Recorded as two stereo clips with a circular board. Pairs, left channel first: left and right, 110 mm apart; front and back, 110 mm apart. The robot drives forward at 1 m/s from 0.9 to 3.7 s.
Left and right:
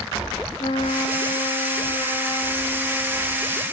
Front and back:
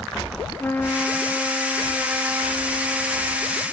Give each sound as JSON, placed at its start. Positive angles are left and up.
{"t": 0.6, "sound": "a trumpet", "azimuth_deg": 70, "distance_m": 2.5}